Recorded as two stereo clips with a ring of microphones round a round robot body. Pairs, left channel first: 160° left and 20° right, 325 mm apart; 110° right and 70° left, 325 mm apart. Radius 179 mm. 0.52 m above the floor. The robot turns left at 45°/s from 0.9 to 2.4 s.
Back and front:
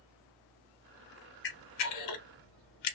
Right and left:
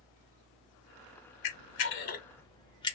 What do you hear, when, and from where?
1.4 s a camera shutter: 145° right, 0.6 m; by 3.0 s 170° left, 0.6 m